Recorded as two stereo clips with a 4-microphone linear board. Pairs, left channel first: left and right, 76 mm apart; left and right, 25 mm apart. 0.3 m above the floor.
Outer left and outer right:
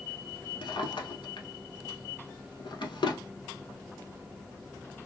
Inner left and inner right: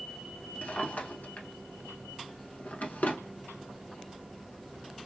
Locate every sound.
0.6 s a drawer: 85° left, 0.6 m